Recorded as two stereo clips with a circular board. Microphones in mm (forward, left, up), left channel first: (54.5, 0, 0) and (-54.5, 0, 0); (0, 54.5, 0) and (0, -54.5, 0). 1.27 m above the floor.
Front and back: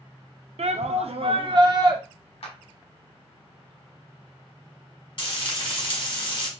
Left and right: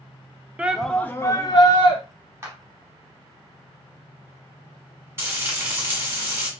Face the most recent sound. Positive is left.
turn(degrees=-25)